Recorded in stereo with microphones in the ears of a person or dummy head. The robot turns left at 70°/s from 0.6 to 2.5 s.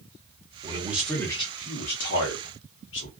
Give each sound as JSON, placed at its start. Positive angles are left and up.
{"t": 0.6, "sound": "a man speaking", "azimuth_deg": -150, "distance_m": 1.3}